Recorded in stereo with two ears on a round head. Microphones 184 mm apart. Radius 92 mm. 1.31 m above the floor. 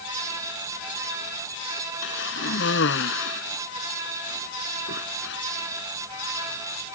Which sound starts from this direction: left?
A cough, at 2.0 s.